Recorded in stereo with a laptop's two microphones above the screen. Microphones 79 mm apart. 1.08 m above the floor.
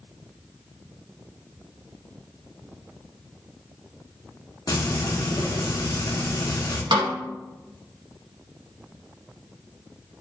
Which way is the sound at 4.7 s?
60° left (ahead or behind).